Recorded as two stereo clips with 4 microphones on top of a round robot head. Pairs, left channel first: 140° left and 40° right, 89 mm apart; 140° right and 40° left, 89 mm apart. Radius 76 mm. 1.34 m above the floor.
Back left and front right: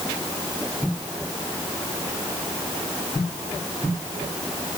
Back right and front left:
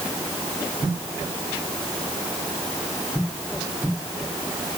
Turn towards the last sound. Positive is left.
No sound to turn to.